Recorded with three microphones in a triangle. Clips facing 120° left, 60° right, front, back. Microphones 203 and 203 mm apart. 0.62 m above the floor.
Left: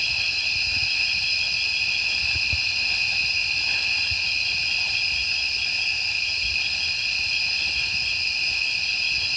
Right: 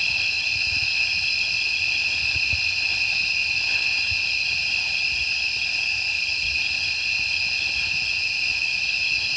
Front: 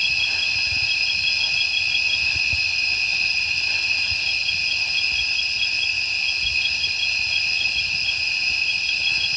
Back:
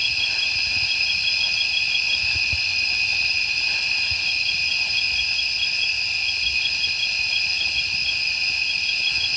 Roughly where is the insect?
Left.